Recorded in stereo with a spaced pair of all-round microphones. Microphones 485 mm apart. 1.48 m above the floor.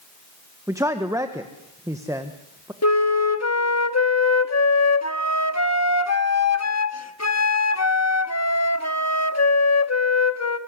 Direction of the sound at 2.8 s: 30° left (ahead or behind).